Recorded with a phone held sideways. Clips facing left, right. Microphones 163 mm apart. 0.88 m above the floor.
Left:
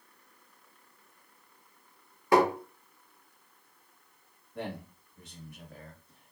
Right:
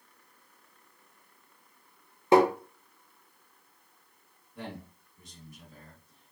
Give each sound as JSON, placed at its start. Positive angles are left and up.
{"t": 2.3, "sound": "tapping", "side_deg": -25, "distance_m": 0.8}
{"t": 4.5, "sound": "a man speaking", "side_deg": 65, "distance_m": 1.3}